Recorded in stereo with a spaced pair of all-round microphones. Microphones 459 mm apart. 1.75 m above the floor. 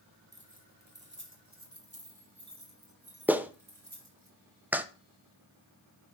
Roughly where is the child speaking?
No child speaking in this recording.